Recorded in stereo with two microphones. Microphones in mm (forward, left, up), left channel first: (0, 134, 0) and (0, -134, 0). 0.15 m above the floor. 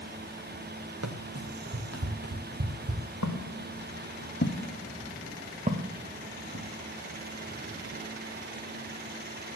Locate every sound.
1.0 s running footsteps: 75° right (ahead or behind), 2 m; by 3.0 s 55° right (ahead or behind), 2.5 m
3.2 s footsteps: 70° left (ahead or behind), 1.9 m; by 6.7 s 50° right (ahead or behind), 2 m